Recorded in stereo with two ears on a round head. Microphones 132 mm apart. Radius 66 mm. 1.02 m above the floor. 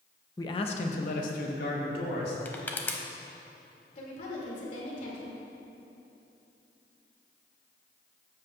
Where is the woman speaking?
55° left (ahead or behind), 2.5 m.